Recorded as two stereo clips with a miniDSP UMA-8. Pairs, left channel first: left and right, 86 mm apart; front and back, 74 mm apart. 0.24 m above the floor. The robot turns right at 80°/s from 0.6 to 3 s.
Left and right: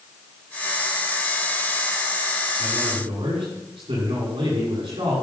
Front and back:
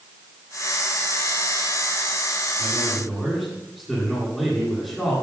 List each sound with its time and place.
2.6 s a man speaking: 125° right, 9 m; by 5.1 s 90° right, 9 m